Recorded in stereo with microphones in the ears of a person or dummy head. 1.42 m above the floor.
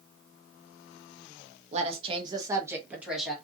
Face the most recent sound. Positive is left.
turn(degrees=-5)  # may be behind; listen again after turning